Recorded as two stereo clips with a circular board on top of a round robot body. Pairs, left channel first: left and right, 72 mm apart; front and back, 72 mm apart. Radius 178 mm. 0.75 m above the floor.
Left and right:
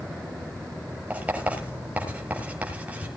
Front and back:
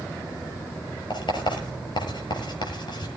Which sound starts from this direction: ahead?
Writing, at 1.1 s.